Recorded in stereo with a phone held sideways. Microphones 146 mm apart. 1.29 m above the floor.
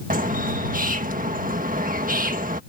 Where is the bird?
70° right (ahead or behind).